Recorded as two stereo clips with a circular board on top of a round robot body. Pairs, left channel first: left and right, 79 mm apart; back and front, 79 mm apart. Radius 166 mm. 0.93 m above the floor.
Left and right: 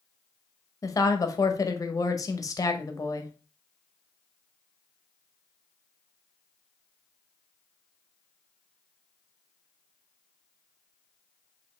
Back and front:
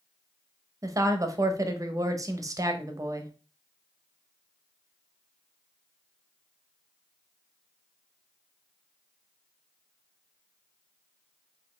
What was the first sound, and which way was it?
A woman speaking, 45° left.